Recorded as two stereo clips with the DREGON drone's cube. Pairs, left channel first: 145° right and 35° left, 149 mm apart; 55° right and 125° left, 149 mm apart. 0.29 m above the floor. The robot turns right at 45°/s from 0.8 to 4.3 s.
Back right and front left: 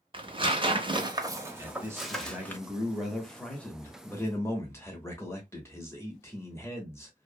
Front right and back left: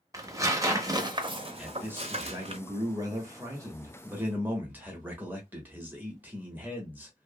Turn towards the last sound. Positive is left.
turn(degrees=180)